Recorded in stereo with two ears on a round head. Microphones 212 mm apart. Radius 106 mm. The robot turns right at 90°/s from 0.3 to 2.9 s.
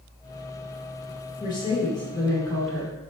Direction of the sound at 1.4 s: 15° left (ahead or behind).